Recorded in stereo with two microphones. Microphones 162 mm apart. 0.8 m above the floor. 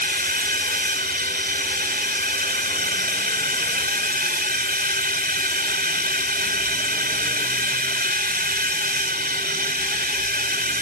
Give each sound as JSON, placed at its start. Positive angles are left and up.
{"t": 0.0, "sound": "a drone", "side_deg": -70}